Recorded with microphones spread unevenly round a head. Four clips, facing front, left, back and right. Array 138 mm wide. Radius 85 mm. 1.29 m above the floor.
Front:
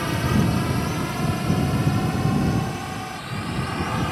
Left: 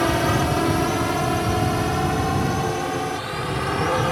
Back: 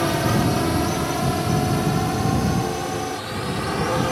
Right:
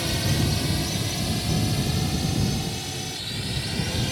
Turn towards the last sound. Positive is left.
turn(degrees=120)